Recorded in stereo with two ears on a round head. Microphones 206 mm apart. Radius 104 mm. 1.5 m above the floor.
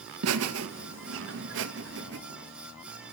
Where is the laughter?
65° right (ahead or behind), 1.9 m; by 2.2 s 50° right (ahead or behind), 2.5 m.